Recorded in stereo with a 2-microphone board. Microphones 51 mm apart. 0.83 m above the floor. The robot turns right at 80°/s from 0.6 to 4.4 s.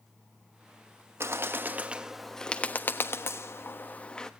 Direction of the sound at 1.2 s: 50° right (ahead or behind).